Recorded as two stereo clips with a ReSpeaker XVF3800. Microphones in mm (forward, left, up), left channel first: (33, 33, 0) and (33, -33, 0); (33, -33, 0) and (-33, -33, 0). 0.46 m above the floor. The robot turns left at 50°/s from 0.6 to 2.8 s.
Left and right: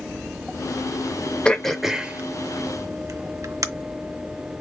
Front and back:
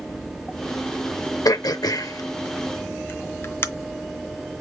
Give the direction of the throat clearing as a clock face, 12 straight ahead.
12 o'clock.